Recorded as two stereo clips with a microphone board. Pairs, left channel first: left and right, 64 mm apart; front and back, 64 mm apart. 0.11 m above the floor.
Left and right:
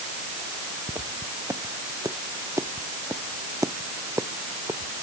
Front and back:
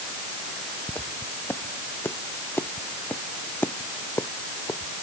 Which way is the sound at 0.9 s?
55° right.